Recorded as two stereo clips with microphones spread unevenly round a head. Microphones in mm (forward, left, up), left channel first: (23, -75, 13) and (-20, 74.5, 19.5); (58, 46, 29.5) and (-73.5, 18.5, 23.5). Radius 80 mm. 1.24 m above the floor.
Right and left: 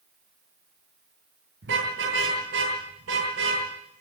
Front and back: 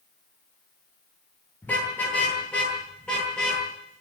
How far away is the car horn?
About 9.5 m.